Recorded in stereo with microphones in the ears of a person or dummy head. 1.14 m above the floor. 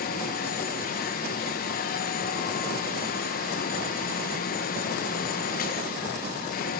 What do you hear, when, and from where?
0.0 s a fan: 45° left (ahead or behind), 1.3 m